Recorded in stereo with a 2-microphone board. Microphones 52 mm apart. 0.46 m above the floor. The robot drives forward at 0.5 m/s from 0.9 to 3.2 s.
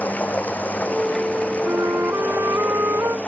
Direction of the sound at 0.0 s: 30° left (ahead or behind).